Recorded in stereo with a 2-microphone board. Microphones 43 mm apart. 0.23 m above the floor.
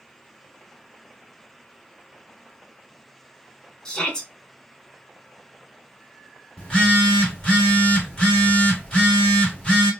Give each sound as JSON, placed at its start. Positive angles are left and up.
{"t": 3.9, "sound": "a shout", "side_deg": 20, "distance_m": 0.9}
{"t": 6.6, "sound": "a phone buzzing", "side_deg": 20, "distance_m": 1.4}